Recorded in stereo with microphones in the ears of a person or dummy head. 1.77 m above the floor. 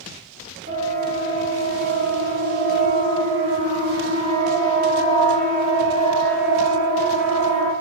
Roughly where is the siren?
Right.